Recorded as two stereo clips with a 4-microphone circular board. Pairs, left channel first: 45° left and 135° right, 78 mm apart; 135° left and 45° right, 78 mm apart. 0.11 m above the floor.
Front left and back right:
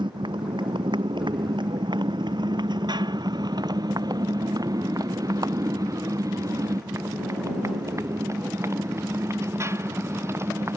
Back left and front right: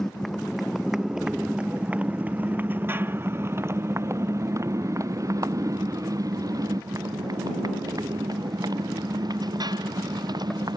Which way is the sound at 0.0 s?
140° right.